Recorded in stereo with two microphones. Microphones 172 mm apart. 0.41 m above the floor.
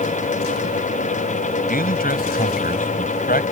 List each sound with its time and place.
1.7 s a man speaking: 60° left (ahead or behind)